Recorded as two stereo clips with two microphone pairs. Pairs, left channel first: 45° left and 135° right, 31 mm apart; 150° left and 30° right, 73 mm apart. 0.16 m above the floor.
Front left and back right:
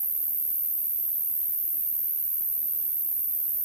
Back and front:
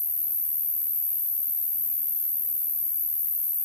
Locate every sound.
0.0 s an insect: 90° left, 3.5 m